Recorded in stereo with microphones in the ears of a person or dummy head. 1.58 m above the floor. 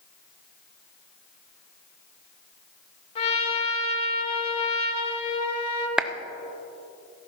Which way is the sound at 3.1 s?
35° left (ahead or behind).